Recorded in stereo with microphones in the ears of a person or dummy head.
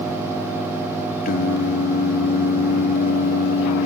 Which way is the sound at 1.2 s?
55° left (ahead or behind).